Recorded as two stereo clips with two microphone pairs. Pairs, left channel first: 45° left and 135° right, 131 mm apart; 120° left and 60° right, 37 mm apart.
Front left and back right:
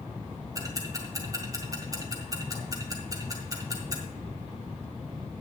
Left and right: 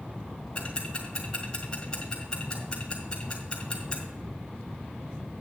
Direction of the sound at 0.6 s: 170° left.